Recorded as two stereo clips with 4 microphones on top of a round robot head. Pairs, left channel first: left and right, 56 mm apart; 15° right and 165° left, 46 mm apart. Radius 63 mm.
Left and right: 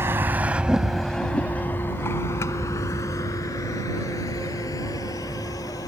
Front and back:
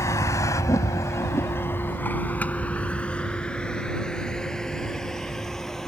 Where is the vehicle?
40° right; by 5.9 s 70° left.